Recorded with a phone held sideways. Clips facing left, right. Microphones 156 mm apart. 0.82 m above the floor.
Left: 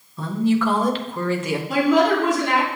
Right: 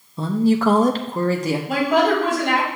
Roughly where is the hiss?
No hiss in this recording.